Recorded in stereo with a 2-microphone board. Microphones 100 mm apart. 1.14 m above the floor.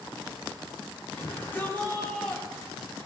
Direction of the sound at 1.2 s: 25° left (ahead or behind).